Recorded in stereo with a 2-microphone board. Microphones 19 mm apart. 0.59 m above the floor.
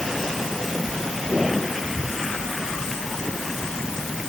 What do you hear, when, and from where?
Only background noise.